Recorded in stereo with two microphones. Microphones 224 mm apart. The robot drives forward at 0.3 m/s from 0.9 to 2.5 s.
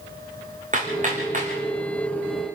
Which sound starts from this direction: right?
Hammering, at 0.7 s.